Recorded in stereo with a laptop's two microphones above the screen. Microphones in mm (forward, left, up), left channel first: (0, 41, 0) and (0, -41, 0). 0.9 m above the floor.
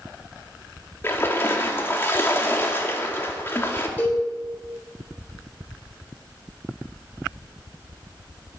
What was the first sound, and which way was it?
A splash, 30° left (ahead or behind).